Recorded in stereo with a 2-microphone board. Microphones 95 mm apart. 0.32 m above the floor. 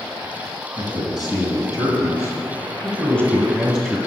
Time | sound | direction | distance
0.8 | a man speaking | 50° left (ahead or behind) | 2.0 m